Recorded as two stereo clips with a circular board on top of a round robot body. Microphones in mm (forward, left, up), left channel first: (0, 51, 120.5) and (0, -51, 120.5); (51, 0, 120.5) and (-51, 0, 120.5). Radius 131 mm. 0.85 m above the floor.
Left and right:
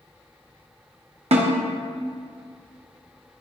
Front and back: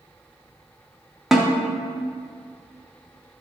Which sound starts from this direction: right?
A snare drum, at 1.3 s.